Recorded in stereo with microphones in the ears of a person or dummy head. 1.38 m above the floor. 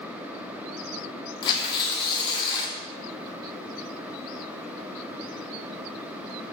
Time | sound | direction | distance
1.4 | tearing paper | 25° left (ahead or behind) | 0.6 m